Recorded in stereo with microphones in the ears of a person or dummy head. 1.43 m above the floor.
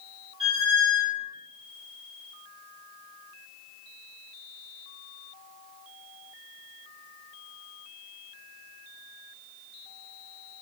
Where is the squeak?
30° right (ahead or behind), 1.1 m.